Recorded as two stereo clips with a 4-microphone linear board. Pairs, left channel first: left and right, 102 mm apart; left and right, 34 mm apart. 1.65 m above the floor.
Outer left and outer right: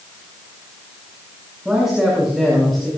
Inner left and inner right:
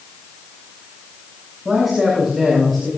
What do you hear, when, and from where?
1.6 s a man speaking: 5° right (ahead or behind), 7.5 m; by 2.9 s 5° left (ahead or behind), 6.5 m